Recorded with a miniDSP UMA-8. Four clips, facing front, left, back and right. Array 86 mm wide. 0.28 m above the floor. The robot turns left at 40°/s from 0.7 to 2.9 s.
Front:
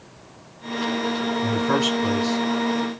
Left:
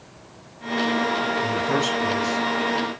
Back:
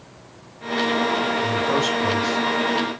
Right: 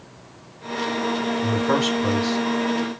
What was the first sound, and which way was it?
A man speaking, 60° right.